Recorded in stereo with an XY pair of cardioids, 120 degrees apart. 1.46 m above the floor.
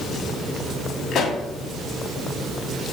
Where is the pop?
45° left, 1.3 m.